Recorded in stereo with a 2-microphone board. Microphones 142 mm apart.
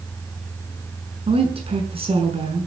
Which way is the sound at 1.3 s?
45° right (ahead or behind).